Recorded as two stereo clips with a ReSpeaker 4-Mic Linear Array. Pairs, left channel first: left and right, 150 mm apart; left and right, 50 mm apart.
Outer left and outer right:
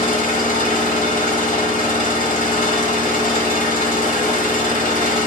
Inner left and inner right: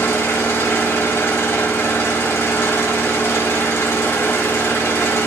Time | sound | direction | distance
0.0 | an engine running | 70° left (ahead or behind) | 1.0 m